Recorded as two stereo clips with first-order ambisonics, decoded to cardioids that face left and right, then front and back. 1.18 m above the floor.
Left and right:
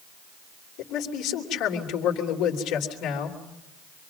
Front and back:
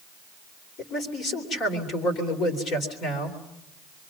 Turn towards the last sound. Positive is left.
turn(degrees=55)